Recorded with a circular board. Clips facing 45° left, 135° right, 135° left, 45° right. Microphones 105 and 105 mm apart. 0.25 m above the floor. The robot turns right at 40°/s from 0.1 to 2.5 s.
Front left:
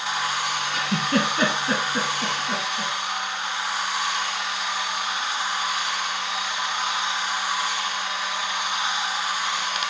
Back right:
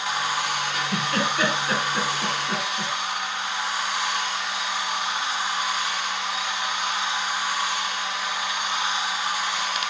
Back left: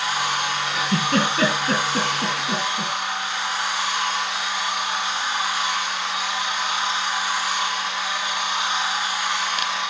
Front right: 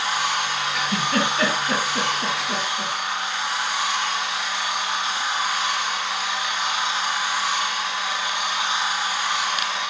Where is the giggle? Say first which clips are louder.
Front left 5 dB, back left 2 dB; 70° left, 2.5 m; by 2.9 s 140° left, 2.5 m.